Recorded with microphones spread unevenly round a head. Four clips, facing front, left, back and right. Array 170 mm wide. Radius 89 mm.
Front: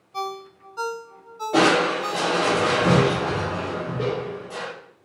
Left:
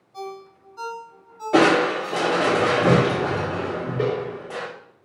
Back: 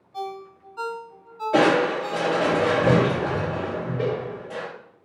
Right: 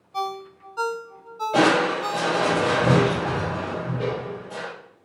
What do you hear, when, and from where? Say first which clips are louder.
0.1 s a ringtone: right 6 dB, front 2 dB; 60° right, 0.9 m
1.5 s crushing: left 2 dB, even; 90° left, 2.5 m